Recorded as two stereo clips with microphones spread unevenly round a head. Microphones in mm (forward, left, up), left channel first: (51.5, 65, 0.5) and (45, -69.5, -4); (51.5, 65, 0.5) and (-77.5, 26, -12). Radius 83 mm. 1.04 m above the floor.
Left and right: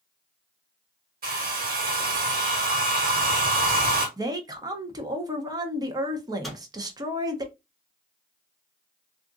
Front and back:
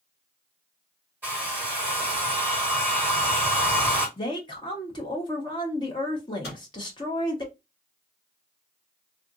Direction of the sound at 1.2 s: 85° right.